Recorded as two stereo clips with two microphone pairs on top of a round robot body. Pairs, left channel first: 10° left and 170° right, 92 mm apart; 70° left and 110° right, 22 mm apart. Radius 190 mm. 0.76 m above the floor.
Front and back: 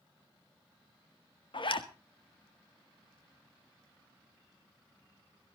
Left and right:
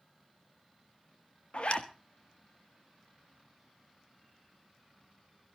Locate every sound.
1.5 s a zipper: 30° left, 1.8 m